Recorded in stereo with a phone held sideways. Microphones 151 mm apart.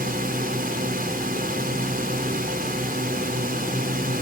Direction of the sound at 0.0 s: 75° right (ahead or behind).